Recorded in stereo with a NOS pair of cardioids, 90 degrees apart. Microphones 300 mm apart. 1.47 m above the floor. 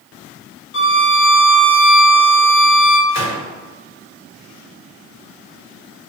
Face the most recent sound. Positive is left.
turn(degrees=60)